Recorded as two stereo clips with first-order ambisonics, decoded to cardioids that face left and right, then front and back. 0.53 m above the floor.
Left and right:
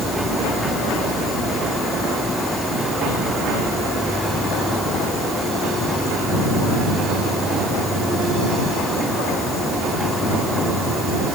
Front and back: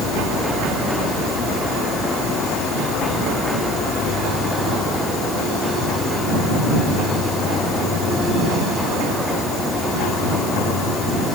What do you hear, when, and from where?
0.0 s an insect: 5° right